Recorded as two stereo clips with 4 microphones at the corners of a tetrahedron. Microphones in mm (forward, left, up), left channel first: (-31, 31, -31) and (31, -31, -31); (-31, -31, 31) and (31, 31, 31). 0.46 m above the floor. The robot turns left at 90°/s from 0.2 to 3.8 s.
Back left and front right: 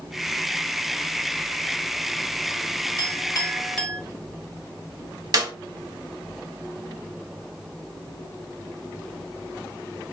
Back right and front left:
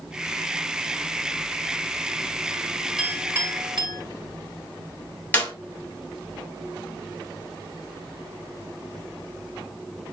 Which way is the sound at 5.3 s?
65° right.